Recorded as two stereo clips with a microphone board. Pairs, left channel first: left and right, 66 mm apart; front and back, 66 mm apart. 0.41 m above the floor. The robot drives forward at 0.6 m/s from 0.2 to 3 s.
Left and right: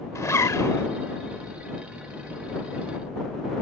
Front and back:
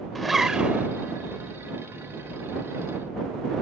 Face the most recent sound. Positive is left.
turn(degrees=155)